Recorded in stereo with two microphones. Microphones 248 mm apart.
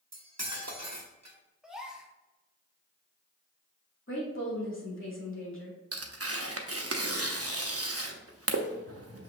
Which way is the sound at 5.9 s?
60° right (ahead or behind).